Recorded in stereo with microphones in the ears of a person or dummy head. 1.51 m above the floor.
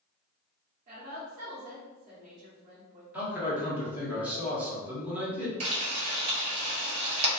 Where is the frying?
40° right (ahead or behind), 1.3 m.